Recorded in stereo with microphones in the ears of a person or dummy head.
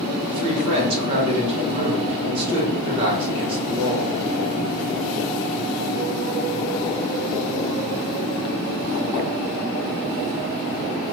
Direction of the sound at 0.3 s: 25° right (ahead or behind).